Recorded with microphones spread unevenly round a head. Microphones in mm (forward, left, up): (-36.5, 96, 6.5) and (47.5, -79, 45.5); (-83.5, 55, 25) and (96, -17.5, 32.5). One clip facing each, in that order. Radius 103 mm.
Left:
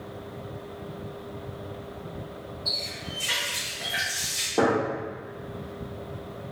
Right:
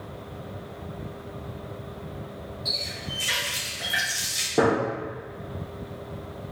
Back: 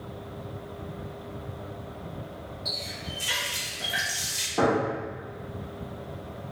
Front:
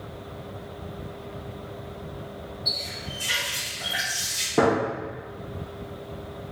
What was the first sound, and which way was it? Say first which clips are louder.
A running tap: right 1 dB, front 1 dB; 135° right.